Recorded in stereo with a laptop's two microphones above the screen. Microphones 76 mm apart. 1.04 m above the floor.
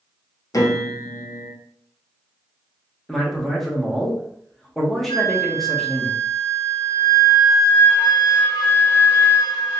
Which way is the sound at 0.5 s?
50° left (ahead or behind).